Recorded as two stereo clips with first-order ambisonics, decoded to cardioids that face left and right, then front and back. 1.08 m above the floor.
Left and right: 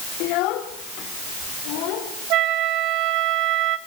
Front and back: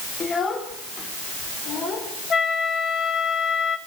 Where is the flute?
65° right, 1.3 m.